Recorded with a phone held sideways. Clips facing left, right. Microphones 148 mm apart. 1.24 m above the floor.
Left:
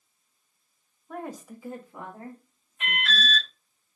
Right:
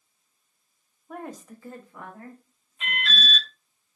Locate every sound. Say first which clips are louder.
1.1 s a woman speaking: left 1 dB; 5° right (ahead or behind), 0.5 m; by 3.4 s 35° left (ahead or behind), 1.6 m
2.8 s an alarm: left 1 dB; 65° left (ahead or behind), 0.8 m